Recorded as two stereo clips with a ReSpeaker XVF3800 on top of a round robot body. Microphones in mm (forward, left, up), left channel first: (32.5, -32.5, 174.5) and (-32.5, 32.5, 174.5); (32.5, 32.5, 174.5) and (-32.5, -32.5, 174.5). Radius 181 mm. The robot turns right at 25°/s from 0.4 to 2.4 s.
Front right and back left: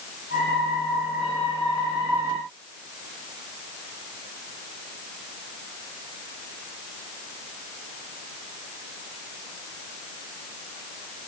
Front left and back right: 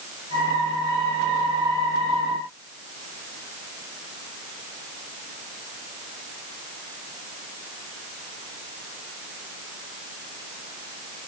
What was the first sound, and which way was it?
Only background noise.